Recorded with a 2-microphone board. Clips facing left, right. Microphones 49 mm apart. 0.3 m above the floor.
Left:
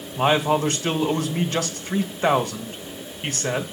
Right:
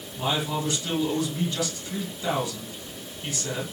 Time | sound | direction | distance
0.2 | a man speaking | 55° left (ahead or behind) | 2 m